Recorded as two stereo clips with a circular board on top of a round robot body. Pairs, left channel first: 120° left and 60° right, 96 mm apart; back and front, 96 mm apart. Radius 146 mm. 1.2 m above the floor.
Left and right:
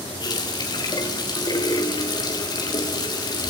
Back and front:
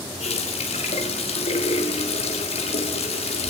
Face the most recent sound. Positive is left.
turn(degrees=170)